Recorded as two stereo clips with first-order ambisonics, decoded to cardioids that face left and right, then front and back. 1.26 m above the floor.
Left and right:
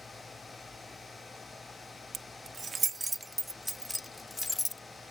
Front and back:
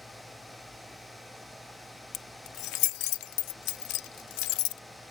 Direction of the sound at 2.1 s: 30° right.